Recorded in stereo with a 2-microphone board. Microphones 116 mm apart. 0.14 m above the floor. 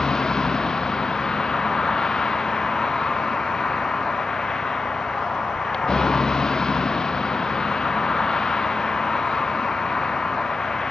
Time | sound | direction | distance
0.0 | a vehicle | 5° left (ahead or behind) | ?